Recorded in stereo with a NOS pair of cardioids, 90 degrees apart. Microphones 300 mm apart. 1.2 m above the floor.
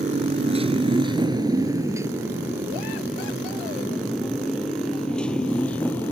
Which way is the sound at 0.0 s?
25° right.